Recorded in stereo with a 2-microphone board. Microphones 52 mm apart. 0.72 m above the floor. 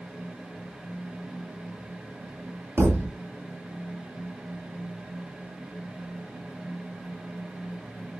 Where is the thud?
50° right (ahead or behind), 1.1 m.